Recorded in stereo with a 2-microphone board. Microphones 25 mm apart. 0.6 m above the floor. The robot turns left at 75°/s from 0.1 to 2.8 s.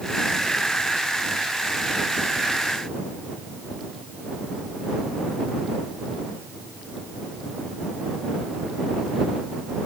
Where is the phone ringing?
No phone ringing in this recording.